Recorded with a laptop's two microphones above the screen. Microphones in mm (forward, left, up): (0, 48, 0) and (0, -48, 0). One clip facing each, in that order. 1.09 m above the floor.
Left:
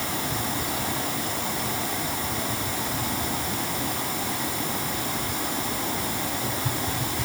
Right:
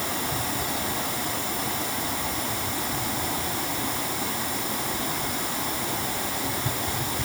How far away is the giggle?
I don't hear a giggle.